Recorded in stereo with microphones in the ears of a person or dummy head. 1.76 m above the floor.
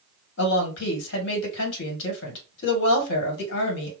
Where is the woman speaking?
70° left (ahead or behind), 1.9 m.